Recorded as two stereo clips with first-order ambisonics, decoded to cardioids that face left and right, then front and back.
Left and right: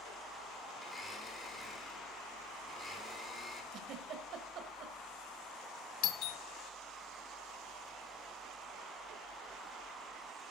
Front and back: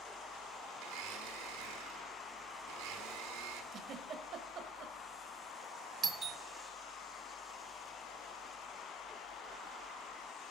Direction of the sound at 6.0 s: 115° left.